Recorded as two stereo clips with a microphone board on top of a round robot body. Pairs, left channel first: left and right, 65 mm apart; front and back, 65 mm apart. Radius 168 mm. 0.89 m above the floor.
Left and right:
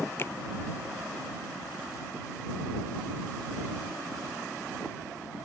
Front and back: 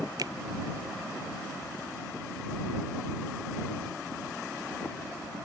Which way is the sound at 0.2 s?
145° left.